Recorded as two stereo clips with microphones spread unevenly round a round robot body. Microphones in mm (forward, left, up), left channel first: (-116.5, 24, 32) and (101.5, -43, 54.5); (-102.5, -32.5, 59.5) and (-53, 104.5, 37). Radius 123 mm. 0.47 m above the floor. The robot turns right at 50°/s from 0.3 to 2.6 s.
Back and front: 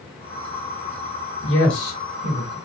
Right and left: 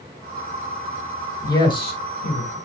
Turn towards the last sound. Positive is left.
turn(degrees=-120)